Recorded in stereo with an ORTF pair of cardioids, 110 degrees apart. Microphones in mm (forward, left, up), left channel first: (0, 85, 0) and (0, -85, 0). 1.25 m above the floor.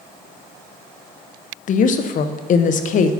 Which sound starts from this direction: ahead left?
A woman speaking, at 1.7 s.